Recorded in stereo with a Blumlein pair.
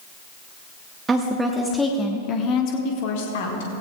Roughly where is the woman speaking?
Ahead.